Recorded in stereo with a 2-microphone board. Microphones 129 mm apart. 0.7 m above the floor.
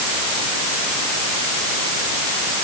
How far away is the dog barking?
No dog barking in this recording.